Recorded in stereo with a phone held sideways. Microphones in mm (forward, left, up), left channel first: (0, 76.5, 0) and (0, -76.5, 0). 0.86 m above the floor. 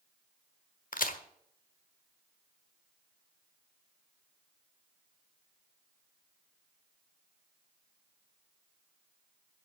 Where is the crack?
70° left (ahead or behind), 1.3 m.